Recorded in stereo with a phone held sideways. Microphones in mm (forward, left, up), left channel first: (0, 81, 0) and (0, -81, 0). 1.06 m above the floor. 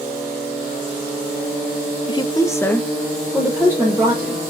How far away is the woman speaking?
About 0.6 m.